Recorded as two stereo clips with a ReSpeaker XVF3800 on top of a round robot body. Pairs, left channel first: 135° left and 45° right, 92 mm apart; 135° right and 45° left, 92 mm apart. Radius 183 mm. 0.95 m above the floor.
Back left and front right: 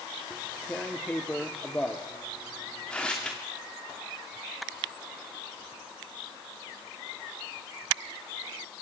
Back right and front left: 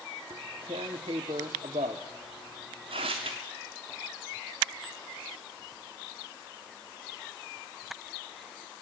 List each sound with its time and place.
0.3 s tearing paper: 55° left, 0.5 m